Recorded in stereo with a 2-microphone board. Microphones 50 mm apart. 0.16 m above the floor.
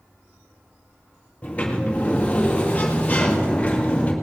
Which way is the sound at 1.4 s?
30° left (ahead or behind).